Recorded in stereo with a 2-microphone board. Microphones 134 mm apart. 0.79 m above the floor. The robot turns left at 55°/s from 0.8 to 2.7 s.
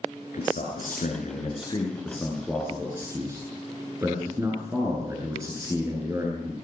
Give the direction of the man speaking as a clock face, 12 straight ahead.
9 o'clock.